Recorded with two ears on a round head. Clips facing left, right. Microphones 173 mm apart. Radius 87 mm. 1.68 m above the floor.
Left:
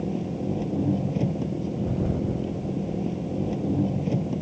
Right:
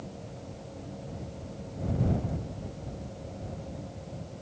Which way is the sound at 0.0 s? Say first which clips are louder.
Left 15 dB; 85° left.